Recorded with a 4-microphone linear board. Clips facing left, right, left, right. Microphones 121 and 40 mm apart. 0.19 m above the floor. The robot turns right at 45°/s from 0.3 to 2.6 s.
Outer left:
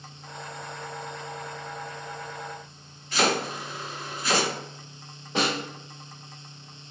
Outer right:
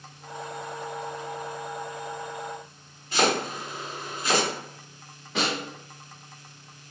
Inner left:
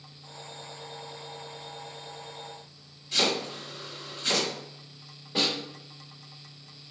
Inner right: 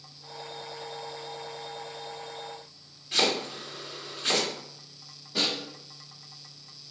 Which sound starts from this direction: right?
Chopping, at 3.1 s.